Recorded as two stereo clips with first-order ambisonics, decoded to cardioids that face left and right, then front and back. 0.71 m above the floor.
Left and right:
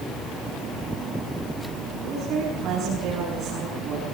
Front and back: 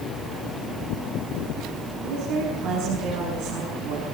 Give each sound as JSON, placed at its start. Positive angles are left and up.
{"t": 2.0, "sound": "a woman speaking", "azimuth_deg": -150, "distance_m": 7.5}